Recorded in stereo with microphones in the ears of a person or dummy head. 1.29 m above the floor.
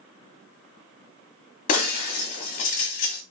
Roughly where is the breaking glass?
Left.